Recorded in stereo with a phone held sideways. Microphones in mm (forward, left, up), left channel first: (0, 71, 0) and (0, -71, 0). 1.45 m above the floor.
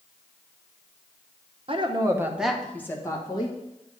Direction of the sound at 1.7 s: 45° right (ahead or behind).